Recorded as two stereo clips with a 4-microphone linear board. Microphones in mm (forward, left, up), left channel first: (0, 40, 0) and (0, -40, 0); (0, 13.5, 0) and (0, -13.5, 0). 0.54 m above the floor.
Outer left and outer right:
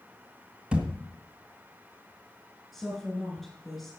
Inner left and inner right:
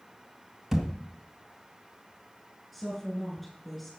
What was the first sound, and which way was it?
A thud, 15° right (ahead or behind).